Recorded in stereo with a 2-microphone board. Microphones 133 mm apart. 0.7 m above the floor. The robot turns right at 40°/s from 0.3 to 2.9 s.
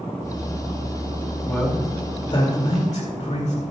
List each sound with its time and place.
1.4 s a man speaking: 10° left, 2.5 m; by 3.6 s 65° left, 2.5 m